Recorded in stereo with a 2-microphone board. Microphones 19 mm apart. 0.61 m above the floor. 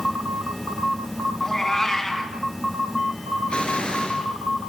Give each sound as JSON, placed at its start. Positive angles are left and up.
{"t": 1.4, "sound": "a cat meowing", "side_deg": 20, "distance_m": 2.5}
{"t": 3.5, "sound": "an explosion", "side_deg": 85, "distance_m": 5.0}